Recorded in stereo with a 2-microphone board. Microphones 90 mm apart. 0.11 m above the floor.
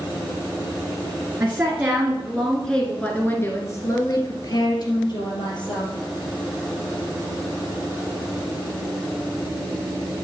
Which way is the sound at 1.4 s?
25° right (ahead or behind).